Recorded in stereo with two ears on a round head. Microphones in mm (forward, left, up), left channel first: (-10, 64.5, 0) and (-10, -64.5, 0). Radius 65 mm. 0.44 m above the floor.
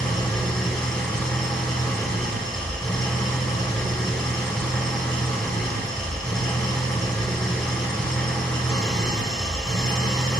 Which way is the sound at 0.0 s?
5° left (ahead or behind).